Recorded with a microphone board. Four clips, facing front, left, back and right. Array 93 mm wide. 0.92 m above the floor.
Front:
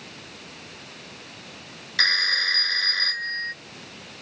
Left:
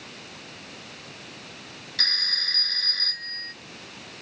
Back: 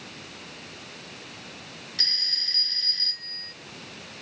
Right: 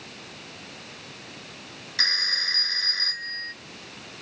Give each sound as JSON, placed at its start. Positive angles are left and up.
{"t": 2.0, "sound": "a phone ringing", "azimuth_deg": -15}